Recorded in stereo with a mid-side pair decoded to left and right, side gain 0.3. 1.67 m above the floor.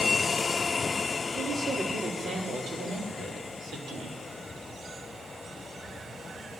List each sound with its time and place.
1.4 s a woman speaking: 60° right, 4 m; by 4.2 s 80° right, 4.5 m